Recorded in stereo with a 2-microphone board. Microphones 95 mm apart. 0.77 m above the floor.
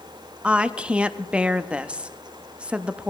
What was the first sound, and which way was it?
A woman speaking, 10° right (ahead or behind).